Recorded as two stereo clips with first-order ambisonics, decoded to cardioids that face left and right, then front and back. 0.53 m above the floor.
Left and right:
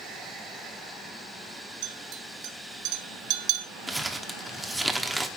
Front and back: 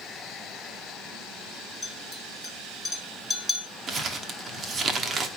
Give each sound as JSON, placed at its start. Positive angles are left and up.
{"t": 1.8, "sound": "a clink", "azimuth_deg": -85, "distance_m": 1.5}
{"t": 3.9, "sound": "crumpling", "azimuth_deg": -170, "distance_m": 1.0}